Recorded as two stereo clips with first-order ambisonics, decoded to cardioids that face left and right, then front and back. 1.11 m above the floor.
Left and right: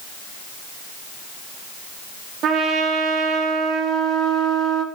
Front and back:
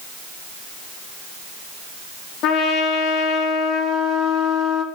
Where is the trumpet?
40° right, 1.7 m.